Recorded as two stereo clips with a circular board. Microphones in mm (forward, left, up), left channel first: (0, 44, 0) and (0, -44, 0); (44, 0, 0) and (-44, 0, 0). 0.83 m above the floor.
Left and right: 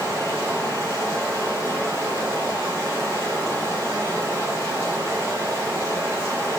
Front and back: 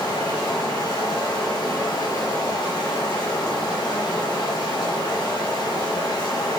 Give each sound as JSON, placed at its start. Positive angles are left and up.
{"t": 0.0, "sound": "running water", "azimuth_deg": -30, "distance_m": 2.5}